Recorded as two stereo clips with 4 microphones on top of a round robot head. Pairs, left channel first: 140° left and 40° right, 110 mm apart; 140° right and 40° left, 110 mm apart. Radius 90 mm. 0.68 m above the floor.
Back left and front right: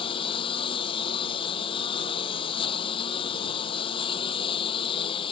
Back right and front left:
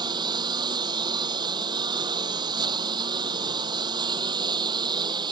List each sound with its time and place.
0.0 s a lawn mower: 95° left